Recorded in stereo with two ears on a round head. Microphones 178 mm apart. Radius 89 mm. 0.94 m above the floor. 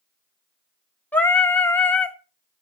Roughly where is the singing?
Centre.